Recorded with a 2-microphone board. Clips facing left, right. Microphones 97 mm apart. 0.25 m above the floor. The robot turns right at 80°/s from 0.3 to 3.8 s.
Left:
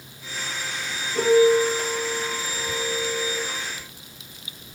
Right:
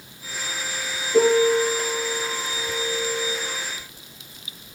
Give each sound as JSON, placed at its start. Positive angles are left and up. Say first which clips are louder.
{"t": 1.1, "sound": "a piano", "louder": "even", "azimuth_deg": -75, "distance_m": 8.5}